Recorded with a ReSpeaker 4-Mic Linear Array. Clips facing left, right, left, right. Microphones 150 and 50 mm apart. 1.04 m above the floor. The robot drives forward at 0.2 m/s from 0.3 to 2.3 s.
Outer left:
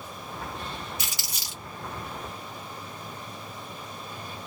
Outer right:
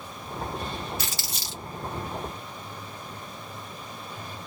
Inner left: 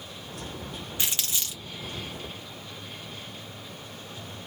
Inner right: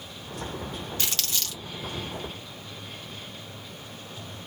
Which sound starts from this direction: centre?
Crumpling, at 1.0 s.